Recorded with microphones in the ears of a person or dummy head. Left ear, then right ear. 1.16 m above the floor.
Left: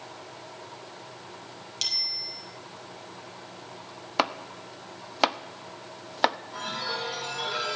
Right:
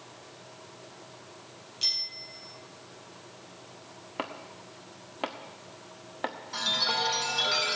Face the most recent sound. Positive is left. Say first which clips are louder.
# right 5 dB
turn(degrees=-45)  # may be behind; listen again after turning